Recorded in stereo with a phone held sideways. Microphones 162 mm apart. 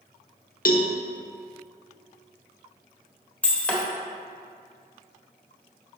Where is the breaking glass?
10° left (ahead or behind), 1.2 m.